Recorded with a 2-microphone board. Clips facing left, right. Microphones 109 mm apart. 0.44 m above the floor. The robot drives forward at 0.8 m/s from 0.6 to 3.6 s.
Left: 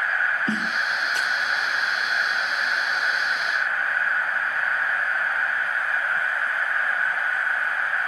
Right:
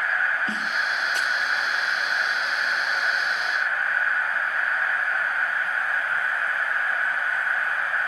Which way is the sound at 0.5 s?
35° left (ahead or behind).